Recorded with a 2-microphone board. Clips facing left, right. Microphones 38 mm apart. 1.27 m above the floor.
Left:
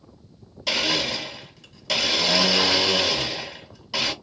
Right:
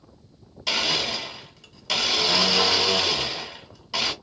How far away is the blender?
About 1.5 m.